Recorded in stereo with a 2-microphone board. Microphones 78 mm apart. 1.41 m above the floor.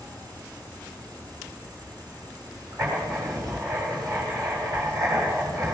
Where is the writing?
50° right (ahead or behind), 7.5 m.